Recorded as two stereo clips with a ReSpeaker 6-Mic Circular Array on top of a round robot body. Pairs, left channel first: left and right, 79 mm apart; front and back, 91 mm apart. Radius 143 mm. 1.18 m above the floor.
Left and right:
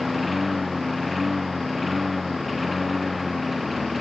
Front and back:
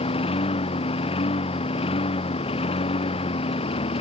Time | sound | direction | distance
0.0 | a lawn mower | straight ahead | ?